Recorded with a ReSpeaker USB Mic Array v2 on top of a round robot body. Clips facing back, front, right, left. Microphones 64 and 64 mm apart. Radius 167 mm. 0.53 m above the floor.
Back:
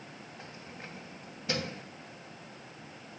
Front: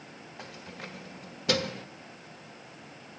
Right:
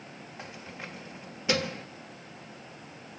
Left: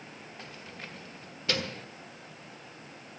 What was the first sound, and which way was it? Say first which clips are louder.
Keys jangling: front 5 dB, right 4 dB; 15° right.